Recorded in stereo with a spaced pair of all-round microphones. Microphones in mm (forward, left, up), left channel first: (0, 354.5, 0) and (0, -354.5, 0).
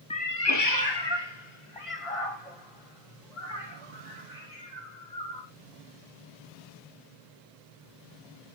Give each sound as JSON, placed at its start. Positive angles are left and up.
{"t": 0.1, "sound": "a cat meowing", "side_deg": 10, "distance_m": 0.6}